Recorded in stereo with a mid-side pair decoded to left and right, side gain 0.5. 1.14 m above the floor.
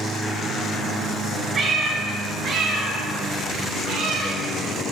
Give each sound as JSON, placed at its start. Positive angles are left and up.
{"t": 1.6, "sound": "a cat meowing", "azimuth_deg": -45, "distance_m": 4.0}